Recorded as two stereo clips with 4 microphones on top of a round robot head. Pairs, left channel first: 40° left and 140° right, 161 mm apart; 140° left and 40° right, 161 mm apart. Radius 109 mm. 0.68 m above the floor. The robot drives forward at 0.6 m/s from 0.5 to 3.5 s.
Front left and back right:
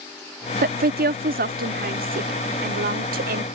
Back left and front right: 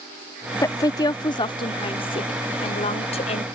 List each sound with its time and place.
0.6 s a woman speaking: 155° right; by 3.5 s 170° right